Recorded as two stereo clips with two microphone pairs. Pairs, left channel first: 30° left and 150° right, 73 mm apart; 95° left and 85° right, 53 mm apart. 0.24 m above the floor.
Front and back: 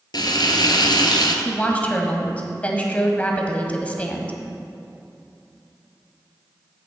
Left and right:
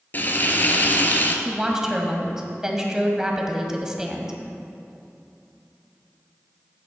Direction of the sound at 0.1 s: 45° left.